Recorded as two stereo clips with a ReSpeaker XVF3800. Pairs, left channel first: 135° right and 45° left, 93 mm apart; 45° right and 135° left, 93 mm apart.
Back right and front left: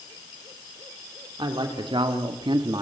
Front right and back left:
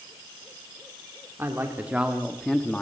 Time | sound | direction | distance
1.4 | a man speaking | 75° left | 2.5 m